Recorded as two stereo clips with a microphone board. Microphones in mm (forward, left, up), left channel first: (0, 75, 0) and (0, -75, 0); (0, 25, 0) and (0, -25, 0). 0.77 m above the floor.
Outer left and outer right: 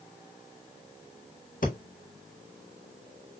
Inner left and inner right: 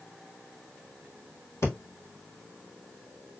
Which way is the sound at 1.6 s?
60° left (ahead or behind).